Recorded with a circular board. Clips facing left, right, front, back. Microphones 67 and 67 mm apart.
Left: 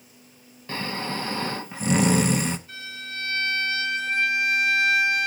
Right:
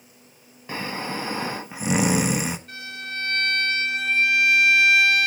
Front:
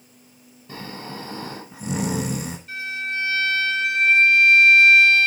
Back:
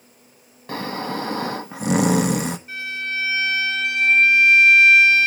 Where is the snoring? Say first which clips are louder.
Even, back 8 dB; 170° right, 0.8 m.